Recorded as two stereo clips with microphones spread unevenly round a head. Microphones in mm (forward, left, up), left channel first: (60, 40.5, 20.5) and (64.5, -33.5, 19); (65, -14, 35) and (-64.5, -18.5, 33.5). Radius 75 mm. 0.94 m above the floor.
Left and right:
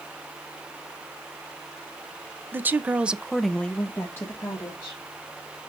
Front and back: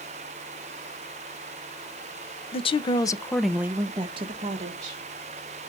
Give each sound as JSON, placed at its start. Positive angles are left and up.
{"t": 2.5, "sound": "a woman speaking", "azimuth_deg": -30, "distance_m": 0.8}